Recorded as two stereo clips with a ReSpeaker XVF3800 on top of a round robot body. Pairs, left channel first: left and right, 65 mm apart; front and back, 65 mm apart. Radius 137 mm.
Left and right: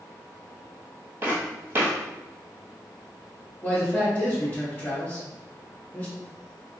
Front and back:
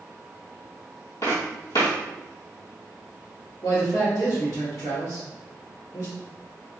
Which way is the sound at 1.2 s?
35° right.